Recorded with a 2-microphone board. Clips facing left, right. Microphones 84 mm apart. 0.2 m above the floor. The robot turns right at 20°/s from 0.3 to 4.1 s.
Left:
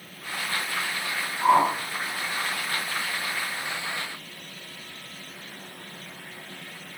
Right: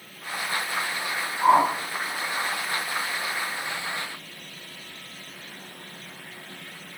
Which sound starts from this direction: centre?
A whoosh, at 1.4 s.